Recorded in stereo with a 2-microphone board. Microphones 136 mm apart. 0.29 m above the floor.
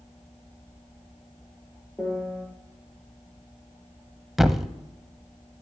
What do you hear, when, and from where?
2.0 s a piano: 5° left (ahead or behind), 2 m
4.4 s a thud: centre (ahead or behind), 0.7 m